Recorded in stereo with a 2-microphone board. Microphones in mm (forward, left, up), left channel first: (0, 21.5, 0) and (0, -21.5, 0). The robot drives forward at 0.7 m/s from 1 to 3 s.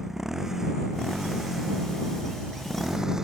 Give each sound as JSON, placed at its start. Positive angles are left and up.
{"t": 0.0, "sound": "a motorcycle", "side_deg": -10}